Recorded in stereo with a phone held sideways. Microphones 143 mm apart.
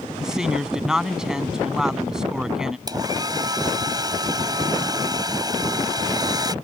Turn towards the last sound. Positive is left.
turn(degrees=-30)  # may be behind; listen again after turning